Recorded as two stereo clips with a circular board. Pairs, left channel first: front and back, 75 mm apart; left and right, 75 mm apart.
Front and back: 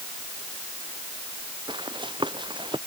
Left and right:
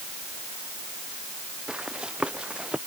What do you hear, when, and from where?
1.7 s running footsteps: 170° right; by 2.8 s 165° right